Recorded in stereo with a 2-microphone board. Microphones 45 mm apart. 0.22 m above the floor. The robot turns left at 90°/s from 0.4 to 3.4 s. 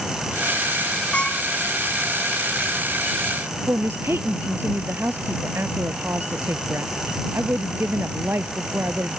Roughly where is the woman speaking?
Right.